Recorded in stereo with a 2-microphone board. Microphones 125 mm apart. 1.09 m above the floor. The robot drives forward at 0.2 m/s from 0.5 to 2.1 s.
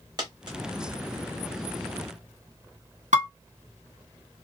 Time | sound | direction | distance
0.2 | a dropped coin | 35° right (ahead or behind) | 1.1 m
3.1 | dishes clattering | 80° right | 1.2 m